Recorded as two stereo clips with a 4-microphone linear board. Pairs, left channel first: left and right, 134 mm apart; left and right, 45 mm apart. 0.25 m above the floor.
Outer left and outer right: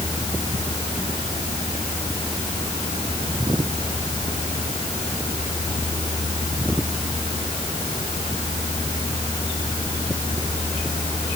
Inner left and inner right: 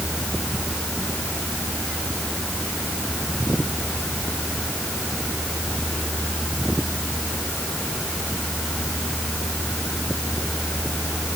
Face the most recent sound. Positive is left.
No sound to turn to.